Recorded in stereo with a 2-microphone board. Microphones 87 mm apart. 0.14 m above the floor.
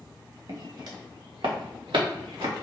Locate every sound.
0.5 s footsteps: 50° right (ahead or behind), 1.3 m; by 2.5 s 85° right, 1.6 m